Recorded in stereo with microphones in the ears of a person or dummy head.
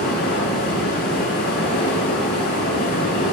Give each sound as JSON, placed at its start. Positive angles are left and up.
{"t": 0.0, "sound": "running water", "side_deg": 60, "distance_m": 6.0}